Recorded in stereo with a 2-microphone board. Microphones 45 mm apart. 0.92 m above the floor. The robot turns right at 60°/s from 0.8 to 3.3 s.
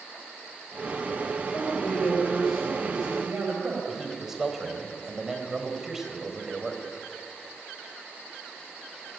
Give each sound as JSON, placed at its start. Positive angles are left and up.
{"t": 1.5, "sound": "a man speaking", "azimuth_deg": 115, "distance_m": 5.5}
{"t": 3.9, "sound": "a man speaking", "side_deg": -10, "distance_m": 4.0}